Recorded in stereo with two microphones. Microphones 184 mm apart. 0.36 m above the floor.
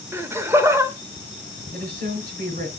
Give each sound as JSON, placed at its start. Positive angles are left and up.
{"t": 0.1, "sound": "laughter", "side_deg": -15, "distance_m": 1.0}
{"t": 1.7, "sound": "a woman speaking", "side_deg": -50, "distance_m": 3.5}